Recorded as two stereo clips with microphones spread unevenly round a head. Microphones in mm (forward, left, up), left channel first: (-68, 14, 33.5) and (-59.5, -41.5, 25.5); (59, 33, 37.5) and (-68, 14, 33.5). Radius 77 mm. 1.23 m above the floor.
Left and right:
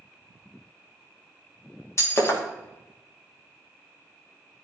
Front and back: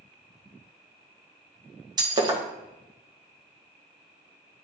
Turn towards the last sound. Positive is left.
turn(degrees=130)